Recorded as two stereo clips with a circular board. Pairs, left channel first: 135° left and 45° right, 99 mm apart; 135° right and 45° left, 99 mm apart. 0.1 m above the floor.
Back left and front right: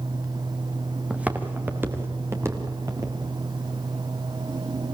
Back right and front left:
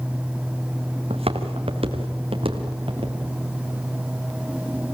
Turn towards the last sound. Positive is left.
turn(degrees=15)